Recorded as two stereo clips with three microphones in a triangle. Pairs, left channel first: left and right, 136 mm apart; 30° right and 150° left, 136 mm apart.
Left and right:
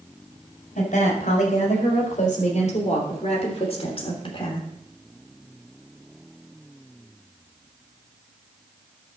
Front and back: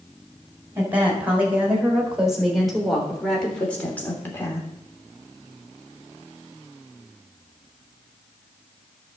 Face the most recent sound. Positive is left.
turn(degrees=40)